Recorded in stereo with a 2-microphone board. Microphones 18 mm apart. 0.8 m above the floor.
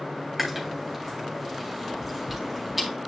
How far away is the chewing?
About 2.5 m.